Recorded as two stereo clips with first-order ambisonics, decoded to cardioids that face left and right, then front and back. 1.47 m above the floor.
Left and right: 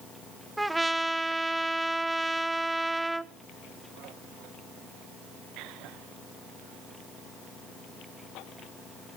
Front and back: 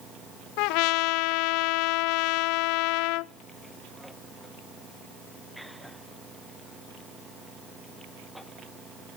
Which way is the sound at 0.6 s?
5° right.